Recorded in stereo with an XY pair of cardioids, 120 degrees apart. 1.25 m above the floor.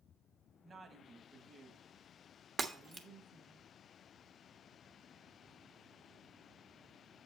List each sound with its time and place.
0.6 s a woman speaking: 30° right, 1.7 m
2.6 s breaking glass: 30° right, 1.2 m